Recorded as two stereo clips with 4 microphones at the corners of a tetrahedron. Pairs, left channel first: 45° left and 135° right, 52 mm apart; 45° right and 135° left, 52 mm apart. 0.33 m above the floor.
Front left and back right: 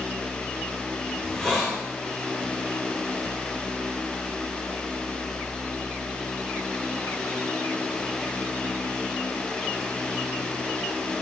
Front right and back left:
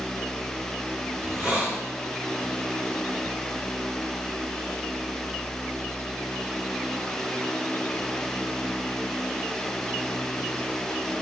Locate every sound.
1.2 s a hiss: 115° left, 1.7 m